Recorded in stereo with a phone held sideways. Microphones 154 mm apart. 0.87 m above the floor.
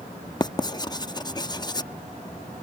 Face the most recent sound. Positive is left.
turn(degrees=25)  # may be behind; listen again after turning